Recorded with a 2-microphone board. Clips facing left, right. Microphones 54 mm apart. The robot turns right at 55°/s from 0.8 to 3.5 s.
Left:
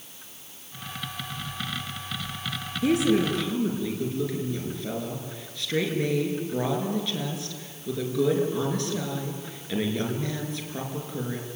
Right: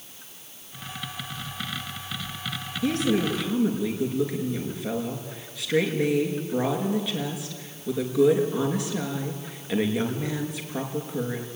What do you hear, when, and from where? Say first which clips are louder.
2.8 s a woman speaking: left 2 dB; 155° left, 5 m; by 11.5 s 165° right, 5 m